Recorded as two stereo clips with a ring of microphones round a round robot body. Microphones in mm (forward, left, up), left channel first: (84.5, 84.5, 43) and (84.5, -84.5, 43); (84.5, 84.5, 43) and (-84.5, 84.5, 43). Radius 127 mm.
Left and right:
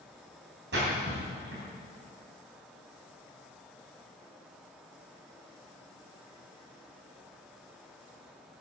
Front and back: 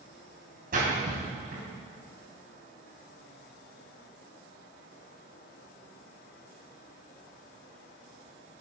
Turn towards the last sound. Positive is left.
turn(degrees=-125)